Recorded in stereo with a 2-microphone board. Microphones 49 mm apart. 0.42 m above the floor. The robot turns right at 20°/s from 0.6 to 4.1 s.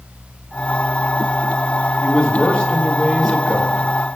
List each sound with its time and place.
2.0 s a man speaking: 145° left, 5 m; by 3.9 s straight behind, 5 m